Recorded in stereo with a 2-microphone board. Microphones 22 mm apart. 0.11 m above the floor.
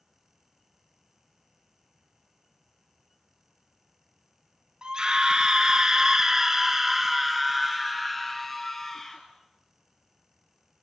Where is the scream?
30° right (ahead or behind), 1.9 m; by 9.2 s 15° left (ahead or behind), 2.5 m.